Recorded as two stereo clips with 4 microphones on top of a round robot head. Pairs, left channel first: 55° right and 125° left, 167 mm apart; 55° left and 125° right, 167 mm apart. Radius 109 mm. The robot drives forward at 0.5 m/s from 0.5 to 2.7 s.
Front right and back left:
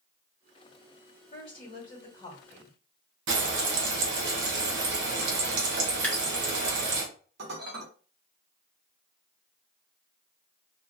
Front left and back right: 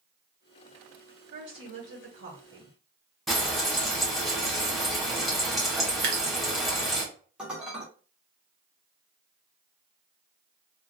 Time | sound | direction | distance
1.3 | a woman speaking | 95° right | 1.3 m
3.3 | frying | 145° left | 0.8 m
6.0 | dripping | 140° right | 1.1 m
7.4 | dishes clattering | 150° left | 0.8 m